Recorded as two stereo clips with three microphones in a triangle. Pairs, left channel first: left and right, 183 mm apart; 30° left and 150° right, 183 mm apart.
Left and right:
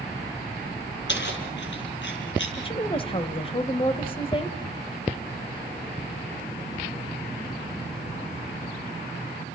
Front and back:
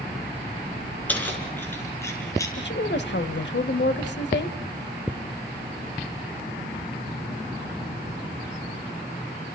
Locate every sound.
1.1 s keys jangling: 110° left, 5 m; by 2.5 s 105° left, 5 m
2.6 s a woman speaking: 35° left, 1.7 m